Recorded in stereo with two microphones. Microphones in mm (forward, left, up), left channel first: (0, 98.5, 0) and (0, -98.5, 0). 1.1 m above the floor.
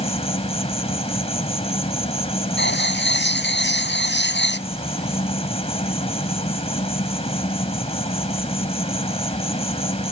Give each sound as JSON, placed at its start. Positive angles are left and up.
{"t": 0.0, "sound": "an insect", "side_deg": 30}
{"t": 2.6, "sound": "writing", "side_deg": 65}